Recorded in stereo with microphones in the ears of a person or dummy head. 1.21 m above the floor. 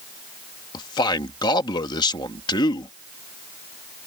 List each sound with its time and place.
0.7 s a man speaking: 20° left (ahead or behind)